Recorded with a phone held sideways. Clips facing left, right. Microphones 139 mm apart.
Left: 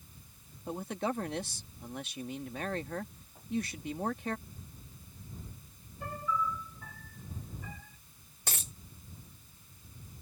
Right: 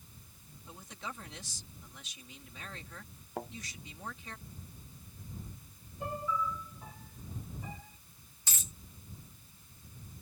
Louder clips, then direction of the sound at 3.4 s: Right 10 dB; 80° right.